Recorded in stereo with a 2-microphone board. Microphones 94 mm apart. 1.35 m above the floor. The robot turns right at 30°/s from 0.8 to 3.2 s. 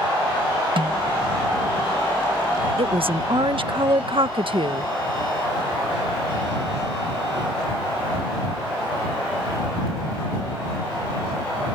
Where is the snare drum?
70° right (ahead or behind); by 1.1 s 60° right (ahead or behind).